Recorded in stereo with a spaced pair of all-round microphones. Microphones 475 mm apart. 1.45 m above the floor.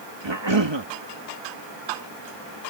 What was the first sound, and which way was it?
A cough, 65° right (ahead or behind).